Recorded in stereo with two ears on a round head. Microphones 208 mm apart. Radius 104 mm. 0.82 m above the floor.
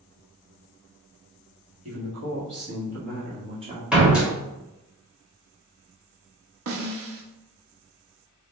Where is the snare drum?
65° right (ahead or behind), 0.7 m.